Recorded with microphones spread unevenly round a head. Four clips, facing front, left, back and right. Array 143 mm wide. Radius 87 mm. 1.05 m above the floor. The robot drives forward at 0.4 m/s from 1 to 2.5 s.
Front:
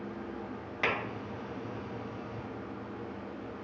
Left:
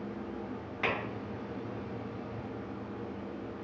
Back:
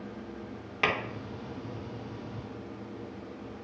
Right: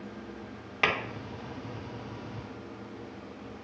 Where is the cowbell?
I don't hear a cowbell.